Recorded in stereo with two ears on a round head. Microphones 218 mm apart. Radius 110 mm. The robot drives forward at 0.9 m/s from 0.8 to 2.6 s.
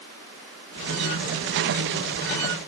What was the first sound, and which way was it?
Only background noise.